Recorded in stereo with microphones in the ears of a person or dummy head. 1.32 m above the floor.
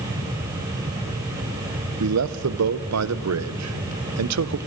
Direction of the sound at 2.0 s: 85° right.